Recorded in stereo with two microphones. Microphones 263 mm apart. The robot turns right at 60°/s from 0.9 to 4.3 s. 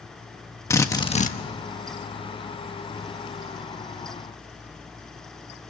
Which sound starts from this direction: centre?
A drill, at 0.7 s.